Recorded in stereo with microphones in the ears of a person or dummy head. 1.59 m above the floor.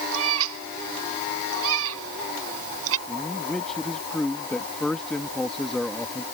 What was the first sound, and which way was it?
A cat meowing, 80° right.